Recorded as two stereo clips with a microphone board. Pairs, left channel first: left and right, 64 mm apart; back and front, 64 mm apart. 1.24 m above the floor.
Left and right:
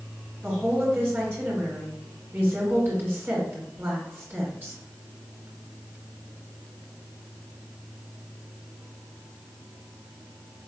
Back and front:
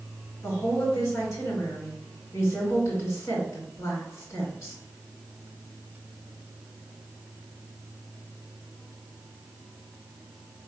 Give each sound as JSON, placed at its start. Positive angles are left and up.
{"t": 0.4, "sound": "a woman speaking", "azimuth_deg": -145, "distance_m": 2.0}